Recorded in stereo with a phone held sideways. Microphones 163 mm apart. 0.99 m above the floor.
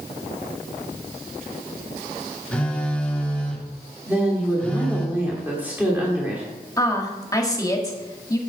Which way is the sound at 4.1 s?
10° right (ahead or behind).